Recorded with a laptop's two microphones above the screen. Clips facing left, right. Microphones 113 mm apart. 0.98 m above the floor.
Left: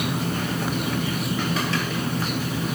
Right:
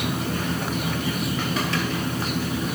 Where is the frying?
I don't hear frying.